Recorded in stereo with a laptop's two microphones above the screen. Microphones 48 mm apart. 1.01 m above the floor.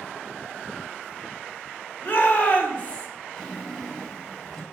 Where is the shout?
40° left (ahead or behind), 1.7 m; by 3.1 s 25° left (ahead or behind), 1.4 m.